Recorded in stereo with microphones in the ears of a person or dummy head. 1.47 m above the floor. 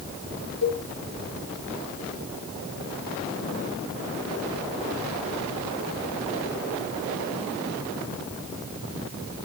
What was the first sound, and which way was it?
A cowbell, 65° left (ahead or behind).